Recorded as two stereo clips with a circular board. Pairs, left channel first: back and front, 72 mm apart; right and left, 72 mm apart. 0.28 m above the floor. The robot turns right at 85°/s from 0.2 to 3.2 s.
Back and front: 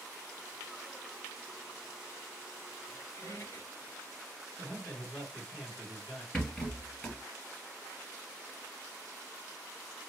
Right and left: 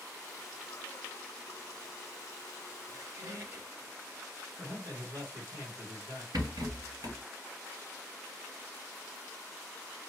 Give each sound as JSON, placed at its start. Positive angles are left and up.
{"t": 2.9, "sound": "a squeak", "azimuth_deg": 105, "distance_m": 1.6}
{"t": 4.6, "sound": "a man speaking", "azimuth_deg": 85, "distance_m": 1.8}
{"t": 6.3, "sound": "a rattle", "azimuth_deg": 100, "distance_m": 2.0}